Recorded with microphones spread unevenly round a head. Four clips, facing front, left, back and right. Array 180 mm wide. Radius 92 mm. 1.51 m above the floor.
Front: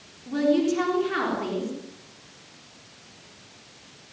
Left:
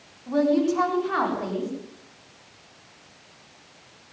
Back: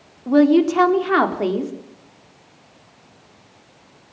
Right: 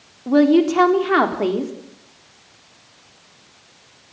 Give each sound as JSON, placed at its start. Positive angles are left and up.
{"t": 0.3, "sound": "a woman speaking", "azimuth_deg": -120, "distance_m": 4.0}